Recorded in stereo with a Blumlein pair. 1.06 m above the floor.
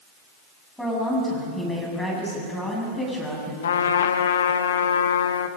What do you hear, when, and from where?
0.8 s a woman speaking: straight ahead, 7.5 m
3.6 s a trumpet: 65° left, 1.0 m